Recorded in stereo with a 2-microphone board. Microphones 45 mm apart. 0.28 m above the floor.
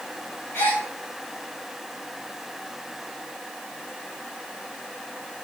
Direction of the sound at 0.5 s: 55° left (ahead or behind).